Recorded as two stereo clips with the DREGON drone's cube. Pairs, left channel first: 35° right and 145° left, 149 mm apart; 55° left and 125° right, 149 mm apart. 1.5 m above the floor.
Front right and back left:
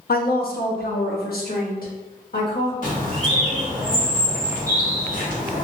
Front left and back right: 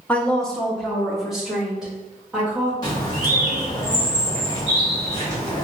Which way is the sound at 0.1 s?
25° right.